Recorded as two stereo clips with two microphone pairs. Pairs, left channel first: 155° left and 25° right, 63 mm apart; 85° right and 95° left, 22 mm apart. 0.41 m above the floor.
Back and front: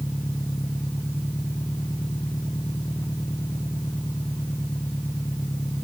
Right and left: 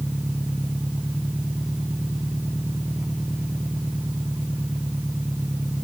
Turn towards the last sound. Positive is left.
turn(degrees=120)